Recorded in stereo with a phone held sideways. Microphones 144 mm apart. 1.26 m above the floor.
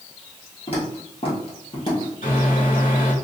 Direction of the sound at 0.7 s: 40° left (ahead or behind).